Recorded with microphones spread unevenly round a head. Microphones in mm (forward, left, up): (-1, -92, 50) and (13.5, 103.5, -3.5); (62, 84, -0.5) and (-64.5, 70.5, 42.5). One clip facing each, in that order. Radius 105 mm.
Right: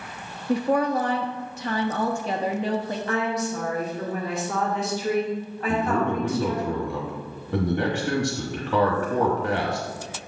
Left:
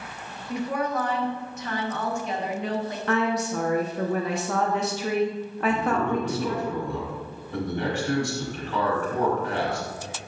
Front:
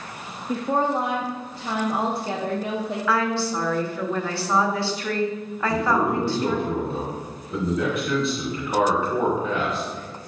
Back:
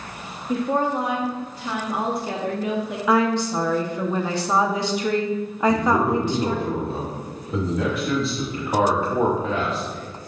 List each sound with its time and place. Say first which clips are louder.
0.5 s a woman speaking: right 6 dB, back 1 dB; 75° right, 0.6 m
3.1 s a woman speaking: left 3 dB, back 5 dB; 125° left, 0.8 m
5.7 s a man speaking: right 2 dB, back 1 dB; 100° right, 1.0 m